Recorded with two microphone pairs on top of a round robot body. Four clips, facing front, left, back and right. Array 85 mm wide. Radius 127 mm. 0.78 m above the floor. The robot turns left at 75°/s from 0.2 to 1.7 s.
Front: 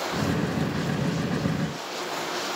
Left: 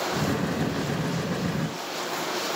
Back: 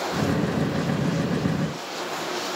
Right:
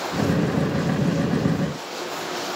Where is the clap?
I don't hear a clap.